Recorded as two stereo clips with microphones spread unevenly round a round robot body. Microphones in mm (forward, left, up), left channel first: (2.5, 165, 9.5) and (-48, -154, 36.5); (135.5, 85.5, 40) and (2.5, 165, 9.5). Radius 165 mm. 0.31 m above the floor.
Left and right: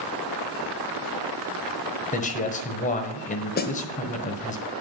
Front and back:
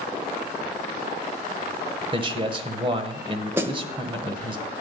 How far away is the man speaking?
About 1.3 m.